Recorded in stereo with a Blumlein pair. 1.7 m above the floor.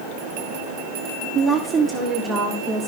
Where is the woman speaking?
15° right, 1.4 m; by 2.9 s 10° right, 2.5 m.